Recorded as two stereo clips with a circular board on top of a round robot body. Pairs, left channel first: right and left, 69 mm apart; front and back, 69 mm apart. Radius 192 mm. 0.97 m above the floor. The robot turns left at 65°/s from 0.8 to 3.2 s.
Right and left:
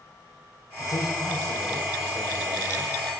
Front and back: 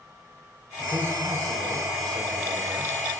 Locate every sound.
0.8 s a man speaking: 105° right, 4 m; by 2.9 s 120° left, 4 m